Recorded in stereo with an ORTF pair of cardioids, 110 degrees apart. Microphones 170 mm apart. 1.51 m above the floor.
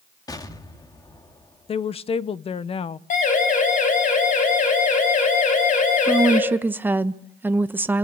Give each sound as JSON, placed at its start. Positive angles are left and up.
{"t": 0.3, "sound": "an explosion", "azimuth_deg": 20, "distance_m": 2.0}
{"t": 1.7, "sound": "a woman speaking", "azimuth_deg": 35, "distance_m": 0.9}
{"t": 3.1, "sound": "a siren", "azimuth_deg": 50, "distance_m": 8.0}
{"t": 6.1, "sound": "a woman speaking", "azimuth_deg": -10, "distance_m": 1.1}